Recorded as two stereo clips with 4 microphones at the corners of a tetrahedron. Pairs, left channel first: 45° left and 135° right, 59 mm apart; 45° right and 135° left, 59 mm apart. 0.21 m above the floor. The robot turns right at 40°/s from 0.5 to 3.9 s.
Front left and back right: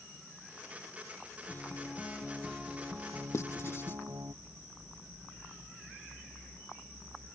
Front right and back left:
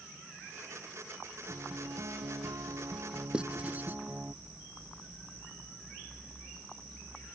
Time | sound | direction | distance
1.5 | a guitar | 95° left | ?
3.3 | writing | 65° left | ?